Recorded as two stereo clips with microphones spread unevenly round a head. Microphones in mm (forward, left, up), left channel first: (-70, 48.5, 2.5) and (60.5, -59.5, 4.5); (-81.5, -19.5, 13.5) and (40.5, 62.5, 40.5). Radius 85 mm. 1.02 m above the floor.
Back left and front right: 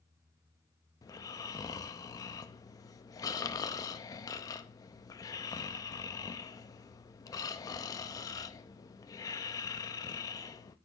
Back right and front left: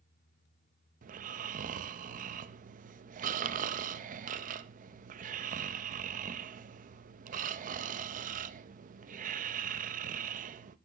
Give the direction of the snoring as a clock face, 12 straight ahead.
10 o'clock.